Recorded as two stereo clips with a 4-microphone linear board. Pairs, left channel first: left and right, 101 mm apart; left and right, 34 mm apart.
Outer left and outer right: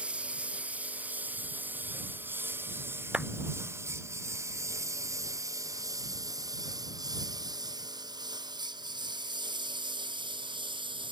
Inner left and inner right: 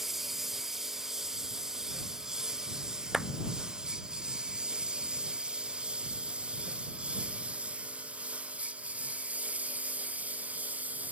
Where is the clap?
10° right (ahead or behind).